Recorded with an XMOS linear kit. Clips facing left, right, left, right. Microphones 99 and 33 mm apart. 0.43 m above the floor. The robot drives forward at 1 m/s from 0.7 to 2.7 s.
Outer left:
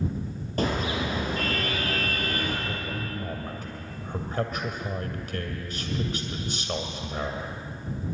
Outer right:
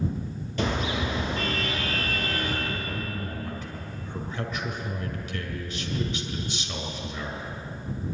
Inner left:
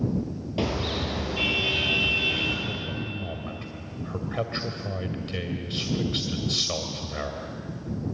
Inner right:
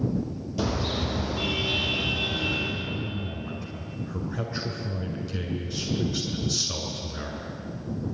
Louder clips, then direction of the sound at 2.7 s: Even, inner right 1 dB; 50° left (ahead or behind).